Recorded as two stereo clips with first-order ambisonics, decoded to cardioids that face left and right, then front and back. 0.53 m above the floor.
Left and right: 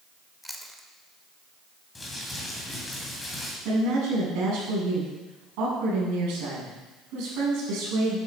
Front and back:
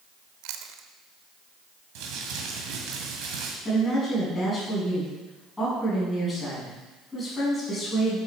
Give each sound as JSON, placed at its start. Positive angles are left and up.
{"t": 0.4, "sound": "chewing", "azimuth_deg": 180, "distance_m": 0.8}
{"t": 1.9, "sound": "crumpling", "azimuth_deg": 170, "distance_m": 2.0}
{"t": 3.6, "sound": "a woman speaking", "azimuth_deg": -80, "distance_m": 5.0}